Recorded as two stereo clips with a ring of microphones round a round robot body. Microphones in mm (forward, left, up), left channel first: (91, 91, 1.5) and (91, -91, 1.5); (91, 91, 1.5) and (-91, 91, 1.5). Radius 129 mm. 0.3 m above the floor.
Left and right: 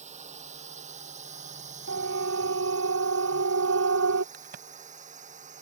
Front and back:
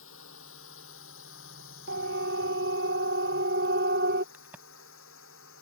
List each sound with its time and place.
0.0 s a drone: 40° right
1.9 s a siren: 130° right; by 4.2 s 125° right
4.3 s a crack: 100° right